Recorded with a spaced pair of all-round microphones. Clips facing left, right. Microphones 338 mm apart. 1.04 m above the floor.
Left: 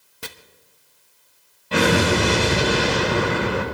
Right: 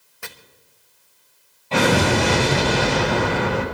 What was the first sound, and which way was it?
Chopping, 45° left (ahead or behind).